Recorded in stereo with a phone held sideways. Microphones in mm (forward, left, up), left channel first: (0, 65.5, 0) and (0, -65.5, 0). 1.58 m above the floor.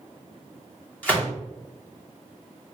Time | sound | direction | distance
1.0 | a gunshot | 10° left (ahead or behind) | 2 m